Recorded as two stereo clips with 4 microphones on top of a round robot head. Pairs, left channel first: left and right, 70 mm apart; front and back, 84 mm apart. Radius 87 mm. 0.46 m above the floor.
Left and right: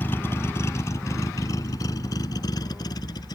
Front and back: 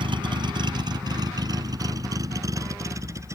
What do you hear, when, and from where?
0.0 s a vehicle: 155° left; by 3.4 s 125° left